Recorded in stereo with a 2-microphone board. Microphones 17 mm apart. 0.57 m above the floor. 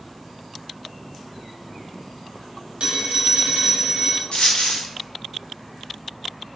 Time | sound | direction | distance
2.8 | a phone ringing | 70° right (ahead or behind) | 1.1 m
4.3 | a dropped coin | 85° left | 1.6 m